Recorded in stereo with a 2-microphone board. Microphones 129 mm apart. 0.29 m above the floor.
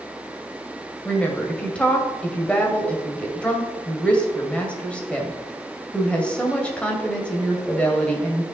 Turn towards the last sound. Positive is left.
turn(degrees=10)  # may be behind; listen again after turning